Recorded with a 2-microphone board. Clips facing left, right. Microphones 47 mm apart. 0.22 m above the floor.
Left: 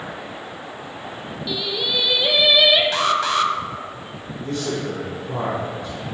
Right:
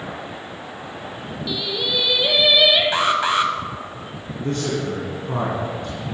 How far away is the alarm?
About 0.9 m.